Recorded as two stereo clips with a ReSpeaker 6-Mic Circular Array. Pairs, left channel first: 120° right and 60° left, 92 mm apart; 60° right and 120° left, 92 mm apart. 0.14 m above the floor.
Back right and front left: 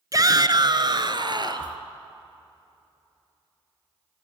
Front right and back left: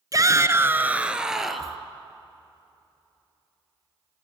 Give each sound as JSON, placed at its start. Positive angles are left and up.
{"t": 0.1, "sound": "a shout", "azimuth_deg": 90, "distance_m": 1.5}